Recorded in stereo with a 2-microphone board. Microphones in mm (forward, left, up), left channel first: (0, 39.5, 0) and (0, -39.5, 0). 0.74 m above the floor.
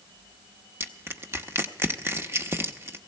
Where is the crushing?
35° right (ahead or behind), 0.8 m.